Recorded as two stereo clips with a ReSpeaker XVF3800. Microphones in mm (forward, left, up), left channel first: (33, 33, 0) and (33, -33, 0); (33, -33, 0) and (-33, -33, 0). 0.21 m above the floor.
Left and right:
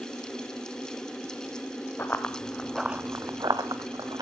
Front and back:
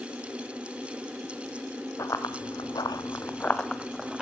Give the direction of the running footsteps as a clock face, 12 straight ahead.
11 o'clock.